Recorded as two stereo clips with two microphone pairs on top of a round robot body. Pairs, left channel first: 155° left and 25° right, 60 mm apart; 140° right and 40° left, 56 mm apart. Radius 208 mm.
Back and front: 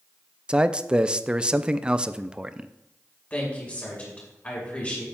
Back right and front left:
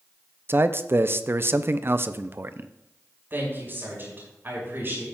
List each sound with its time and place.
0.5 s a man speaking: 70° left, 0.7 m
3.3 s a woman speaking: 90° left, 5.5 m